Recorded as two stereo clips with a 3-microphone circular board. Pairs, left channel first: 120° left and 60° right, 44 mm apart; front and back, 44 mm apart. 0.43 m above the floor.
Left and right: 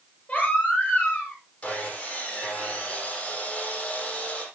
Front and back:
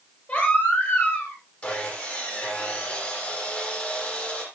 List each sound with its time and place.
0.3 s a baby crying: 55° left, 8.5 m
1.6 s sawing: 55° left, 7 m